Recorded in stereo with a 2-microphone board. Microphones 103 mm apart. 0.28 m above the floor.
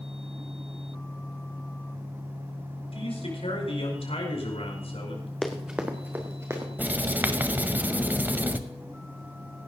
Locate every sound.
2.9 s a man speaking: 75° left (ahead or behind), 5 m
5.4 s running footsteps: 5° left (ahead or behind), 1.4 m; by 6.7 s 30° right (ahead or behind), 3 m
6.8 s writing: 20° right (ahead or behind), 0.8 m